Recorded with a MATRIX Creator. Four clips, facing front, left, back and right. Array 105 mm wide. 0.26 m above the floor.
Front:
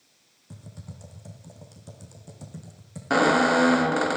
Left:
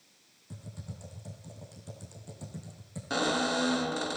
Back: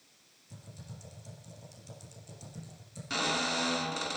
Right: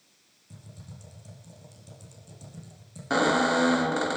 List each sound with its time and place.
0.5 s typing on a keyboard: 20° left, 9 m
3.1 s a squeak: 20° right, 0.6 m